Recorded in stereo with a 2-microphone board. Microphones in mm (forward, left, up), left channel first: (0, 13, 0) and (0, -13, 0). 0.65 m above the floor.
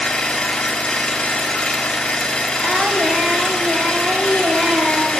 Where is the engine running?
35° left (ahead or behind), 4 m.